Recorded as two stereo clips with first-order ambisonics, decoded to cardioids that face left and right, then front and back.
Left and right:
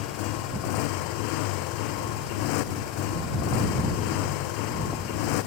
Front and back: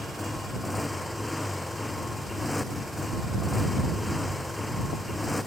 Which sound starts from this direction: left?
A motorcycle, at 0.0 s.